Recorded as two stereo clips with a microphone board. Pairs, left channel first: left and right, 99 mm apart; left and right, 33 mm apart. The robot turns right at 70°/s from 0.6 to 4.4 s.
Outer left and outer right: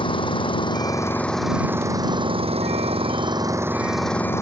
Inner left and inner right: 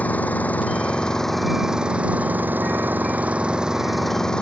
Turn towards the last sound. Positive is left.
turn(degrees=30)